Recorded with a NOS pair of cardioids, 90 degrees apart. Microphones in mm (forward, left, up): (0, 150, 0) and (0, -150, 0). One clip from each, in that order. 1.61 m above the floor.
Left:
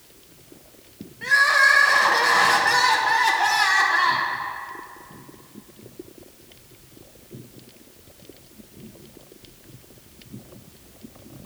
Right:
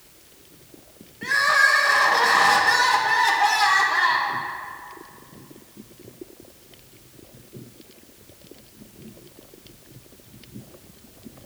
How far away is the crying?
About 1.0 m.